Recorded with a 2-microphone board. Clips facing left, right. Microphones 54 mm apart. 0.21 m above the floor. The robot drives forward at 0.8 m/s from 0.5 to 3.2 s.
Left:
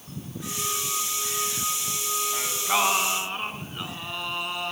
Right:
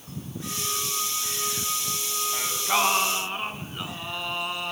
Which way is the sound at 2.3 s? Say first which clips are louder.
Right 1 dB; centre (ahead or behind).